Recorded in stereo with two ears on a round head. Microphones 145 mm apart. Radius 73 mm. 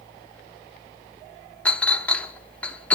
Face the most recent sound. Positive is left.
turn(degrees=10)  # may be behind; listen again after turning